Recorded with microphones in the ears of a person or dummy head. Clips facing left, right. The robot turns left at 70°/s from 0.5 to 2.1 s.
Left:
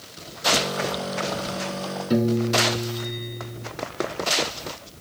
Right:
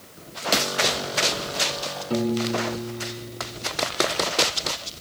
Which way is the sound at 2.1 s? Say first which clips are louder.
Left 3 dB; 20° left (ahead or behind).